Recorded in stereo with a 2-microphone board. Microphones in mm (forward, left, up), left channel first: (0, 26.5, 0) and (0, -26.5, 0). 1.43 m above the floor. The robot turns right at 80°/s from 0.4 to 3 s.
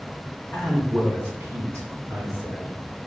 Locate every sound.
0.5 s a man speaking: 155° left, 1.8 m; by 2.7 s 25° right, 1.8 m